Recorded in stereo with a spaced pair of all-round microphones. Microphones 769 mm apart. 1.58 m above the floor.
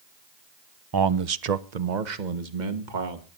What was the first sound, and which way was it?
A man speaking, 30° right (ahead or behind).